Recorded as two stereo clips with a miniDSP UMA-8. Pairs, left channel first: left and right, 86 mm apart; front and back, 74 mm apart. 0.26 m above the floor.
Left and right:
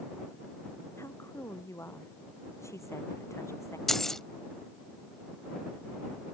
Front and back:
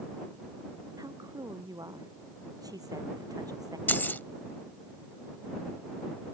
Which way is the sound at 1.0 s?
145° left.